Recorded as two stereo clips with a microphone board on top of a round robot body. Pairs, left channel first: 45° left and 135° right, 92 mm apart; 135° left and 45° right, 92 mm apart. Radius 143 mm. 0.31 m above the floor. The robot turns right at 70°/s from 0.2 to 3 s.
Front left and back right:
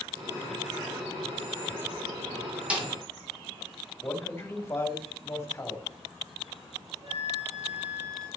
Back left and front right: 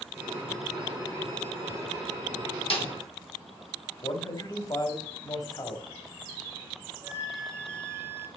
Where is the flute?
110° right, 3.5 m.